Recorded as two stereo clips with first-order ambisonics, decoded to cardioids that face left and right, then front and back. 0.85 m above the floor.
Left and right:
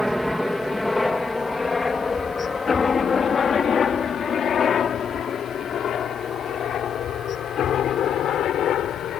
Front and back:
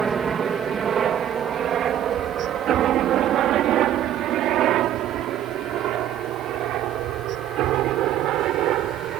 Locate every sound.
0.0 s a helicopter: 175° right; by 9.2 s 140° left